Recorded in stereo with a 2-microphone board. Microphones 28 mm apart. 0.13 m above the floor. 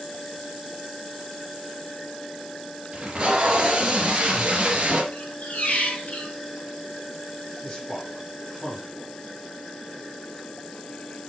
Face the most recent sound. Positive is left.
turn(degrees=15)  # may be behind; listen again after turning